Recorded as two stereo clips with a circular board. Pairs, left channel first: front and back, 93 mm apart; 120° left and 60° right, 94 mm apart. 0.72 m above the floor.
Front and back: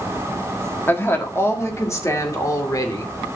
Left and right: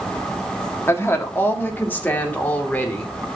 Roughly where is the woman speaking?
Ahead left.